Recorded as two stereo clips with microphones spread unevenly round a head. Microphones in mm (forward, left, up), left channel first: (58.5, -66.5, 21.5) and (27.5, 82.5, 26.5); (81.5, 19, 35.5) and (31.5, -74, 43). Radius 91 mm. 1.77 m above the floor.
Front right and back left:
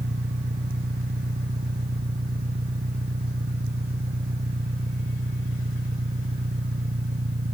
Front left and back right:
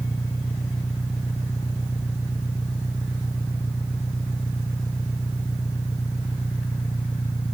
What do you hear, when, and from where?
0.0 s an engine running: 140° left